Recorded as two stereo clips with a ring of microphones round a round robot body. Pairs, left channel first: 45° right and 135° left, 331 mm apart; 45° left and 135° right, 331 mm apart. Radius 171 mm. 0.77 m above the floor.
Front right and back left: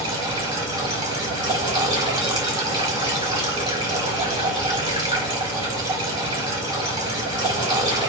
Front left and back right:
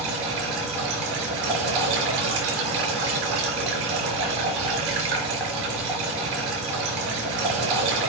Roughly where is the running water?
Behind right.